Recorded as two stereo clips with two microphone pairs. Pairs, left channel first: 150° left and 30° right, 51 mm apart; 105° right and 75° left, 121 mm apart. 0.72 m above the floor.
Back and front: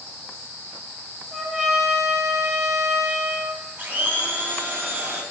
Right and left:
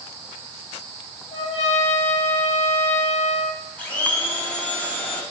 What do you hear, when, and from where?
1.3 s a trumpet: 130° right, 0.8 m
3.8 s a blender: 35° right, 0.6 m